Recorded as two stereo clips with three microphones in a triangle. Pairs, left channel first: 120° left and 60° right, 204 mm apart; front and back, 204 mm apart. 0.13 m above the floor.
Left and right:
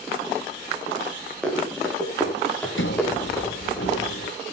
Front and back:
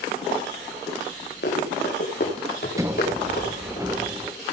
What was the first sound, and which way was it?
Running footsteps, 35° left.